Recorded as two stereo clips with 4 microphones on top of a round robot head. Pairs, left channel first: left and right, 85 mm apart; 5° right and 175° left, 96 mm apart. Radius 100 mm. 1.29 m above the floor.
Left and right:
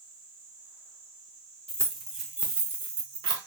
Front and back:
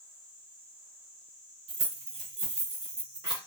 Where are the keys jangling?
165° left, 0.8 m; by 3.4 s 125° right, 0.8 m.